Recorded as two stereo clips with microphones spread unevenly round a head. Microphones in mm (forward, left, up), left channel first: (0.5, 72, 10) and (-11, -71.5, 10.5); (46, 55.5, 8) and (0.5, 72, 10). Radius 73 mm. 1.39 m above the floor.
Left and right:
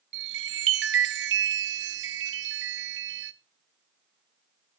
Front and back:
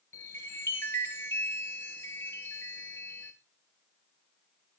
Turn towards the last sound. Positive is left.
turn(degrees=-90)